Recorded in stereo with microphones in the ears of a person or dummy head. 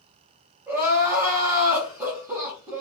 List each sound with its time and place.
0.7 s crying: 10° right (ahead or behind), 1.0 m